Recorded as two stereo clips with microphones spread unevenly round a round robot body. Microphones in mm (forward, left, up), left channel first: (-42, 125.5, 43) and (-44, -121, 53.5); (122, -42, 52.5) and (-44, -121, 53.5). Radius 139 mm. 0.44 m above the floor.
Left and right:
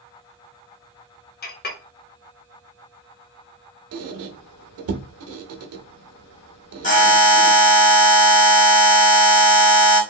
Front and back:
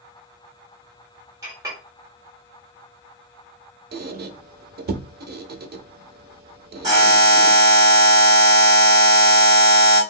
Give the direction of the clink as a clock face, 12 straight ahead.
8 o'clock.